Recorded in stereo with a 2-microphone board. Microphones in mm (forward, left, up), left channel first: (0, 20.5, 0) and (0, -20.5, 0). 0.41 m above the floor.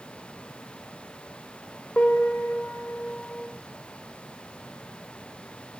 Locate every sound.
2.0 s a piano: 50° left (ahead or behind), 0.5 m